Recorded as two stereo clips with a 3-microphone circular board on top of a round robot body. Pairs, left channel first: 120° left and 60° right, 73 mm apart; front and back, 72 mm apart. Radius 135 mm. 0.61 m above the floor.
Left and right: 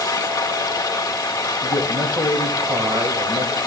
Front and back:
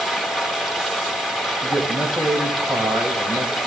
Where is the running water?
90° left, 2 m.